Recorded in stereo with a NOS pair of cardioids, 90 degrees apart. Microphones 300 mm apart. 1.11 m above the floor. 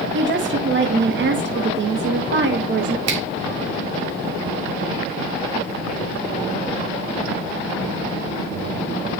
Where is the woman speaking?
40° right, 1.7 m.